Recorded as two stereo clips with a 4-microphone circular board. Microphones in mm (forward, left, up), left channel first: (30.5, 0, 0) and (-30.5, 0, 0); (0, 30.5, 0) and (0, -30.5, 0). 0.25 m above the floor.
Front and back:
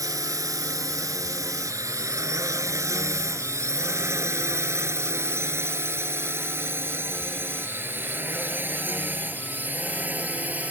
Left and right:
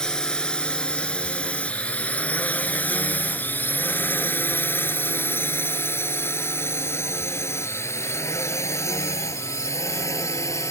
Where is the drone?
170° left; by 10.7 s 115° left.